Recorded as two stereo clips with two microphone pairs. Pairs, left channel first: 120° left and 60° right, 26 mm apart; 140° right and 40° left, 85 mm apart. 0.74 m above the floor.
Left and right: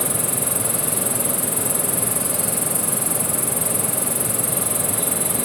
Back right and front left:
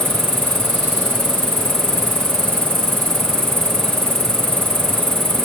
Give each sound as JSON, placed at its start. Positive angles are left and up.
{"t": 0.0, "sound": "an insect", "azimuth_deg": 30}